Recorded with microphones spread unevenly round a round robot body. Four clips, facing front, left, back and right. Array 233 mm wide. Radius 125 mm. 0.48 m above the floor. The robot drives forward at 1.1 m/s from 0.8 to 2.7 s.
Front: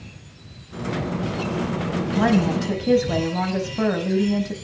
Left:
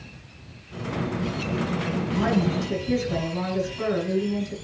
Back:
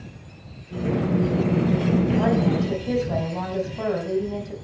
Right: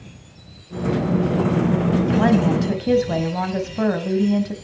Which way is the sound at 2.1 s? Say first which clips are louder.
Right 4 dB, front 1 dB; 50° right.